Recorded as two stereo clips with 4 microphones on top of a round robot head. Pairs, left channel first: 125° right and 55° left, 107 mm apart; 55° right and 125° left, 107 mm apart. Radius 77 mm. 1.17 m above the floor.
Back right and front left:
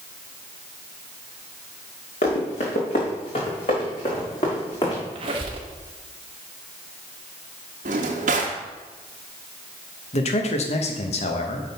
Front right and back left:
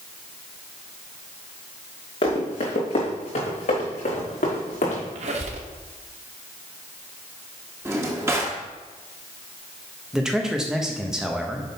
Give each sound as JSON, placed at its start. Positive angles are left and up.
{"t": 2.2, "sound": "running footsteps", "azimuth_deg": -95, "distance_m": 4.0}
{"t": 5.2, "sound": "a squeak", "azimuth_deg": 100, "distance_m": 1.0}
{"t": 7.8, "sound": "a drawer", "azimuth_deg": 55, "distance_m": 0.9}
{"t": 10.1, "sound": "a man speaking", "azimuth_deg": -150, "distance_m": 1.1}